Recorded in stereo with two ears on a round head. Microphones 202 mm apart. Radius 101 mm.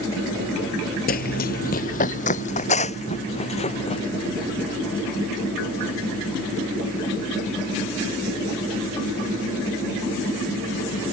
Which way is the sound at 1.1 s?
40° left (ahead or behind).